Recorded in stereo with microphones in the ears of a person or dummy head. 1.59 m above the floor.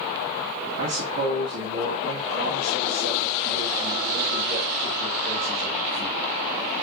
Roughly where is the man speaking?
Right.